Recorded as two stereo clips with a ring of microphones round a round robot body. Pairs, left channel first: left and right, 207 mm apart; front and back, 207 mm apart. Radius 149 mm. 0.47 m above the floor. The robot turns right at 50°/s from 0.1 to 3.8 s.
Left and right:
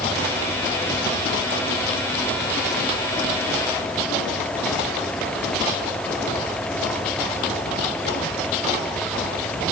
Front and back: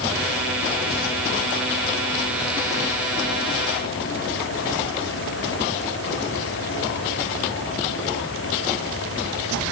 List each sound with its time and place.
Only background noise.